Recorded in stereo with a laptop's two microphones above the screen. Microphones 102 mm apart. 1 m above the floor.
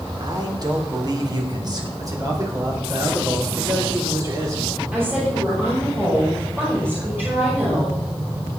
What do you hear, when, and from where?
0.2 s a man speaking: 45° right (ahead or behind), 2.5 m; by 1.9 s 40° right (ahead or behind), 3.5 m
2.0 s a man speaking: 35° right (ahead or behind), 4.5 m
4.9 s a woman speaking: 20° right (ahead or behind), 5 m